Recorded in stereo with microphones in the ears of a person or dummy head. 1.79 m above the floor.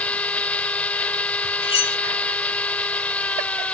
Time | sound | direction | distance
0.0 | a machine running | 5° left (ahead or behind) | ?
1.6 | cutlery clinking | 25° left (ahead or behind) | ?